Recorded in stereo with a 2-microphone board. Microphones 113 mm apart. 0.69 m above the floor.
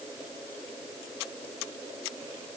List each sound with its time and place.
Only background noise.